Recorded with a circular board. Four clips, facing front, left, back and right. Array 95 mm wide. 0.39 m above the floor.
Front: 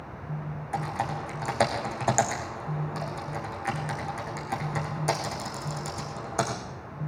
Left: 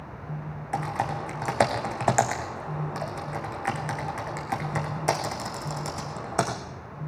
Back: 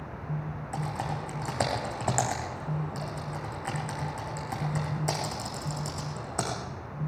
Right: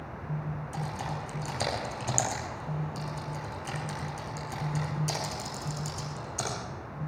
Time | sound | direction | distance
0.7 | typing on a keyboard | 80° left | 5 m